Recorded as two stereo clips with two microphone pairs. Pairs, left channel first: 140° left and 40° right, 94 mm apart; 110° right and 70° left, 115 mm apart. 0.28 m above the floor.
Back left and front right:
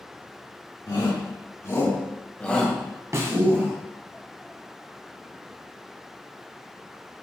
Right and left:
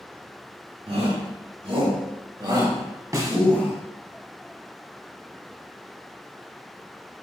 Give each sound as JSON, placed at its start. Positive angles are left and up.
{"t": 0.9, "sound": "a shout", "azimuth_deg": 90, "distance_m": 3.5}
{"t": 3.1, "sound": "a snare drum", "azimuth_deg": 10, "distance_m": 1.3}